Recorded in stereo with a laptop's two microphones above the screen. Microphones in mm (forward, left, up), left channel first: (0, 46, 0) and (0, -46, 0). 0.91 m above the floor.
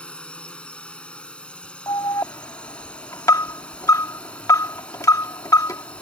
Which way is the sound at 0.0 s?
10° left (ahead or behind).